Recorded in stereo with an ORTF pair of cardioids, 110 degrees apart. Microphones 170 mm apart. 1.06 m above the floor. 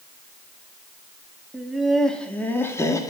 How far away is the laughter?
About 2 m.